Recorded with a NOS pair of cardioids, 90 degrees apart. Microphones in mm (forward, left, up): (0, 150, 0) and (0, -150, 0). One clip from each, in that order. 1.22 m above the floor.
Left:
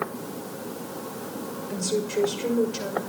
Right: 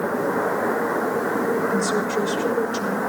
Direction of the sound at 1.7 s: 10° left.